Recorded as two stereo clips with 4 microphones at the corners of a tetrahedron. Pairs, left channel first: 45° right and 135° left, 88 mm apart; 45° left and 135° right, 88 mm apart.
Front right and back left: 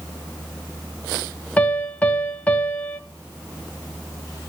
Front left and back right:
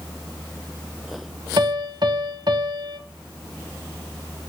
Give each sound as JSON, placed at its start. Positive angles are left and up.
{"t": 1.6, "sound": "a piano", "azimuth_deg": -115, "distance_m": 1.4}